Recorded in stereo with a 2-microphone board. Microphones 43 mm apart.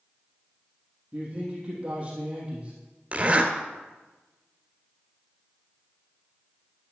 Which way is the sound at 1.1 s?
15° right (ahead or behind).